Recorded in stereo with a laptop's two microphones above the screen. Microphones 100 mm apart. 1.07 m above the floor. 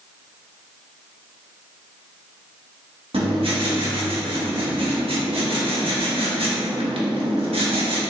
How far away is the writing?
About 1.0 m.